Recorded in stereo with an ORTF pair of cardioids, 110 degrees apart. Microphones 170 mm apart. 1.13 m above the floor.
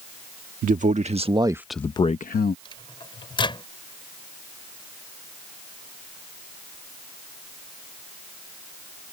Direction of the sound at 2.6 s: 30° left.